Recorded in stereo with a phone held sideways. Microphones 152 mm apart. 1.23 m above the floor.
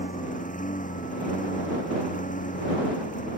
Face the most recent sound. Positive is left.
turn(degrees=60)  # may be behind; listen again after turning